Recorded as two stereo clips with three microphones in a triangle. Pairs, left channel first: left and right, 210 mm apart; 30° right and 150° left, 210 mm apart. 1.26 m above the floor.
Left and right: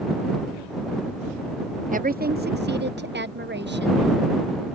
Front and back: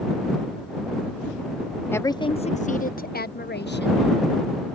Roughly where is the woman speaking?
Right.